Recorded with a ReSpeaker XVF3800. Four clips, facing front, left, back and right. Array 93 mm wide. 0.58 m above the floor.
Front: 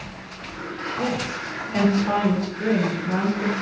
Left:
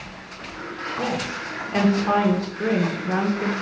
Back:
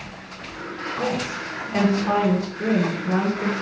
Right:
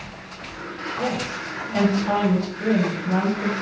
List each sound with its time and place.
1.0 s a woman speaking: 110° left, 1.3 m